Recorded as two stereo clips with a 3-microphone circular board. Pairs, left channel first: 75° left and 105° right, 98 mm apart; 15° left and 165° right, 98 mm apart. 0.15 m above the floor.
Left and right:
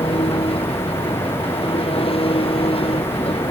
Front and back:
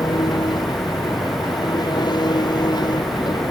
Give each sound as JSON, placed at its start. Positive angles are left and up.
{"t": 0.0, "sound": "an engine running", "azimuth_deg": 60}